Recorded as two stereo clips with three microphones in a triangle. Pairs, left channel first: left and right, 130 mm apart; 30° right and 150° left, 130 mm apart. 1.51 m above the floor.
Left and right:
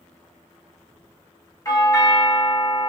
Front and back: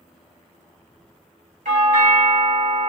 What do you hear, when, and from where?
1.6 s a doorbell: 150° left, 1.6 m